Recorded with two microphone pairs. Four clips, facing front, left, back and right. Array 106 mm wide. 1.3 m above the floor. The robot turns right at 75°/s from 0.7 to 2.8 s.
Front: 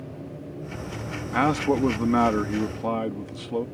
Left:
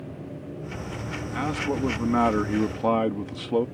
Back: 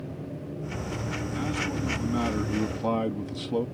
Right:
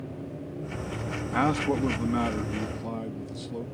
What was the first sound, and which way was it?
A man speaking, 25° right.